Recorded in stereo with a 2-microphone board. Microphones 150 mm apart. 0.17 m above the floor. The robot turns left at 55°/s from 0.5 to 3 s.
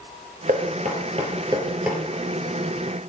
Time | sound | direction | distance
0.5 | knocking | 70° right (ahead or behind) | 2 m